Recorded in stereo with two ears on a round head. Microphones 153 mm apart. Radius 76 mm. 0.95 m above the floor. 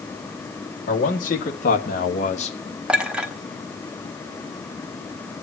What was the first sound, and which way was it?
A man speaking, 50° left (ahead or behind).